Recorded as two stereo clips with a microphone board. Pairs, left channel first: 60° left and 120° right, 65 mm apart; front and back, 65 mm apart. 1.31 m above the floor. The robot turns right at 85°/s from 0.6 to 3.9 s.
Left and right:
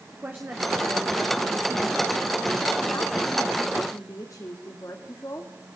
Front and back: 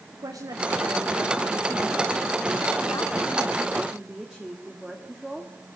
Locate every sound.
0.1 s a woman speaking: straight behind, 2 m; by 5.5 s 100° left, 2 m